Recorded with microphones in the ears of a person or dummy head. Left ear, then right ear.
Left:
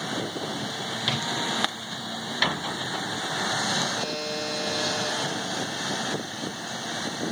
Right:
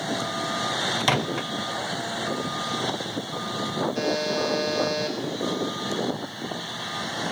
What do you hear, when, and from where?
1.0 s a microwave: 30° right (ahead or behind), 0.7 m
4.0 s a buzzer: 55° right (ahead or behind), 5 m